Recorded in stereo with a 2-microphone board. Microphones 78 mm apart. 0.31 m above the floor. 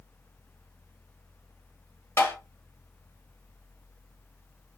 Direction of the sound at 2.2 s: 35° left (ahead or behind).